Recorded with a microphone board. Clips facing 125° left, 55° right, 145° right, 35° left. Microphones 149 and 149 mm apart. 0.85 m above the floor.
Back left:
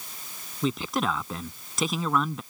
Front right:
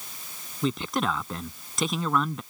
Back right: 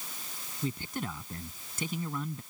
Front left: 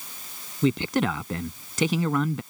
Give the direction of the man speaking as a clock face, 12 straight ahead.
11 o'clock.